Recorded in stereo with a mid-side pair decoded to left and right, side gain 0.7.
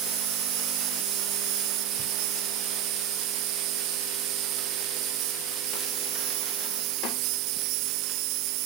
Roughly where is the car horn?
I don't hear a car horn.